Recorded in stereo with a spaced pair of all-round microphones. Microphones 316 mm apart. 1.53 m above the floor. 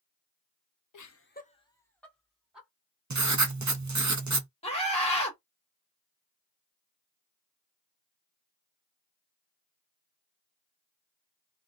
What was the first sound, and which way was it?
Laughter, 75° left (ahead or behind).